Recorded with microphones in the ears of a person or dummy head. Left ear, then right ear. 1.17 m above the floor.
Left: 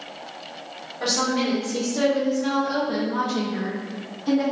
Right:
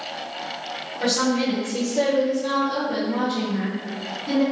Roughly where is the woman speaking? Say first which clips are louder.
Right 1 dB; left.